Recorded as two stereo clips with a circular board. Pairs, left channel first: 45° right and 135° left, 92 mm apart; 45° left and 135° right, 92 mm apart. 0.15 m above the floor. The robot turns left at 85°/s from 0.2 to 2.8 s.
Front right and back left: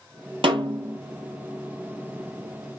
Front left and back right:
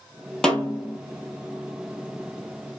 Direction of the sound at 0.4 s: 130° left.